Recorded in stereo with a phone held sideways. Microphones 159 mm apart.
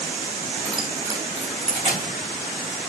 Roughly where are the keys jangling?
Centre.